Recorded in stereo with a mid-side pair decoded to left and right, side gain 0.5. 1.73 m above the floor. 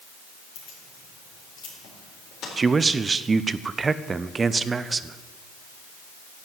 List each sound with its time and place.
0.6 s keys jangling: 65° left, 4 m
2.6 s a man speaking: 30° right, 0.6 m